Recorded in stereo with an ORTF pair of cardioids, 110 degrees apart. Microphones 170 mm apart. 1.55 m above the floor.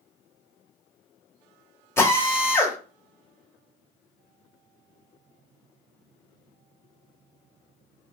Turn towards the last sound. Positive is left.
turn(degrees=15)